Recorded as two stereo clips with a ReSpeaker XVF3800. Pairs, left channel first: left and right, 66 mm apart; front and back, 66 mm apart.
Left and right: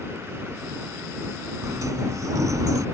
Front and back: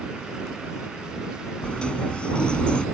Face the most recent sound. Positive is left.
turn(degrees=-75)